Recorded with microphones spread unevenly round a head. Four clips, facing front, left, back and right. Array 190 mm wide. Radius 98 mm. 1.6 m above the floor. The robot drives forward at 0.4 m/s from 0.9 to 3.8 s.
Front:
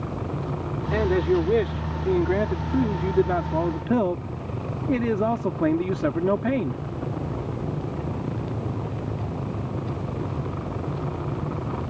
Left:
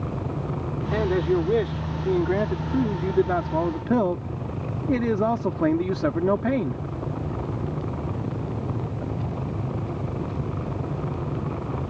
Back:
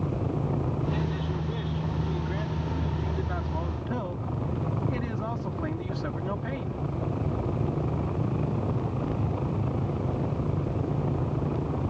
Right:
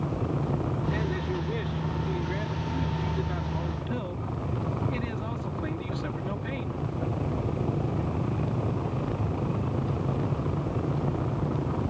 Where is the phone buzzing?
No phone buzzing in this recording.